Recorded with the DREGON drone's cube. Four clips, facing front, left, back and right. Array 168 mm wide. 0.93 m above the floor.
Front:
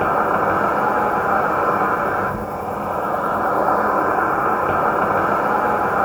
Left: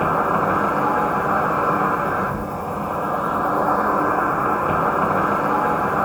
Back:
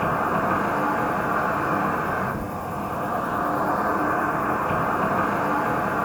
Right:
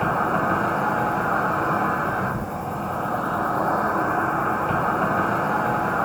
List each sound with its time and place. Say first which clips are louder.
0.0 s an insect: left 3 dB, front 5 dB; 30° left, 1.4 m